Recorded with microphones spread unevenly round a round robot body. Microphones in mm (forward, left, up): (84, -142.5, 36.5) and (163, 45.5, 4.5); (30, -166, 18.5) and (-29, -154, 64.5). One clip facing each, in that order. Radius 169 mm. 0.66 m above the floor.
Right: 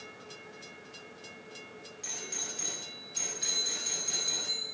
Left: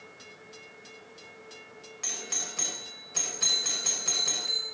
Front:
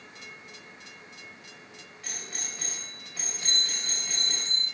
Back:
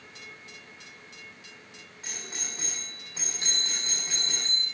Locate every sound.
2.0 s a doorbell: 80° left, 3.5 m
3.4 s a bell: 160° left, 5.5 m